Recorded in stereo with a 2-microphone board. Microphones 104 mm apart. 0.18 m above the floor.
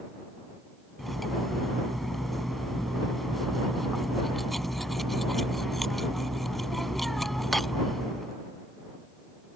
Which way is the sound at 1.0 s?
Centre (ahead or behind).